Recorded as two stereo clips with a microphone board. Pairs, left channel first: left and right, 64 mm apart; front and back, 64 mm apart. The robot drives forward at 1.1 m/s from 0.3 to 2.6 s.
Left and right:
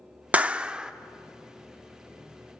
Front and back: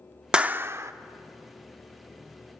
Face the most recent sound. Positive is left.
turn(degrees=-175)